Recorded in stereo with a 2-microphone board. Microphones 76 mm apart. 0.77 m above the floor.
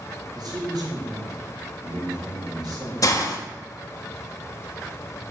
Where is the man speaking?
75° right (ahead or behind), 3.5 m.